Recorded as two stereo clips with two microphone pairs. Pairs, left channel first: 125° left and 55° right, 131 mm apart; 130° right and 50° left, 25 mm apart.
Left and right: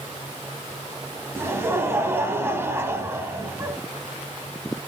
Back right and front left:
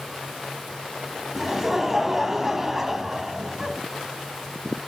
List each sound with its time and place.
1.4 s laughter: 10° right, 1.2 m